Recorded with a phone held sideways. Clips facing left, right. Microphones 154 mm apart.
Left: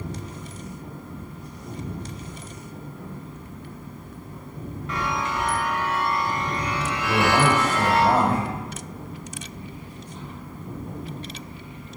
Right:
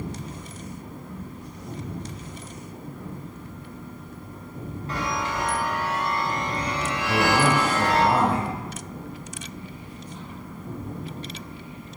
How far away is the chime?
About 1.9 m.